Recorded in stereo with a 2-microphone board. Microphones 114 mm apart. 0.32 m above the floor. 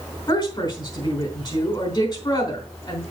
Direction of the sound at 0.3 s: 40° left (ahead or behind).